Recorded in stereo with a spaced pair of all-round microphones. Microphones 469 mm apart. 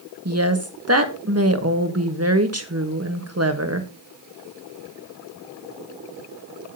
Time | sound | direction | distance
0.2 | a woman speaking | 30° right (ahead or behind) | 1.5 m